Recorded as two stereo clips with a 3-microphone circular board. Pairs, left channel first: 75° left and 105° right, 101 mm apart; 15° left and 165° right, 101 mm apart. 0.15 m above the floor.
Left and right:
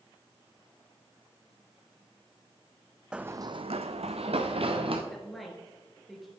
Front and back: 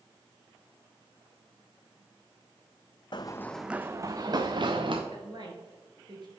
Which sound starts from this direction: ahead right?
Running footsteps, at 3.1 s.